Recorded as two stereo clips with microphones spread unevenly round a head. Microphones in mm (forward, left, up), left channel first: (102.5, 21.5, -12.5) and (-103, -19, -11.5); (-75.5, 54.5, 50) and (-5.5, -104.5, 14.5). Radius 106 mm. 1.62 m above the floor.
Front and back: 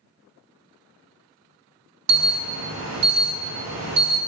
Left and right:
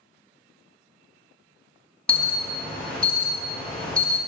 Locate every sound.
2.1 s an alarm: 160° right, 1.5 m